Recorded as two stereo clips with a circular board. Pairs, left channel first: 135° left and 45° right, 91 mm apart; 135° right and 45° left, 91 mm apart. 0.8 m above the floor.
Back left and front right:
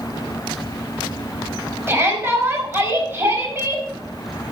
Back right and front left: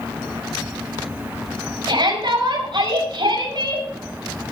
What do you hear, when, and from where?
1.9 s a shout: 25° left, 5.5 m